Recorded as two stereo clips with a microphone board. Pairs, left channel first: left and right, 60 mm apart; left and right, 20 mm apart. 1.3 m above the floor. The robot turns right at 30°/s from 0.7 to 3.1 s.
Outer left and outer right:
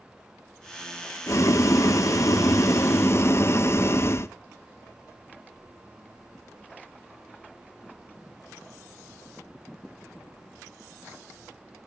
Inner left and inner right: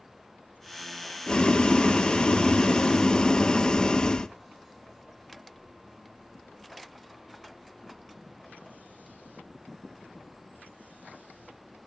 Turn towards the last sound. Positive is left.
turn(degrees=125)